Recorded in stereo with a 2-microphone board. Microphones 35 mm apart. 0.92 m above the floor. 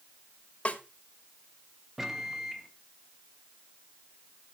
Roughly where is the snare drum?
Left.